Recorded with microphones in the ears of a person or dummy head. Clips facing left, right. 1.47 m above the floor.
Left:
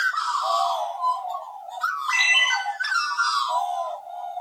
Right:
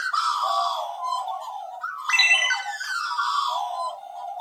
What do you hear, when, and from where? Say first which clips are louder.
2.1 s a ringtone: right 3 dB; 20° right (ahead or behind), 1.3 m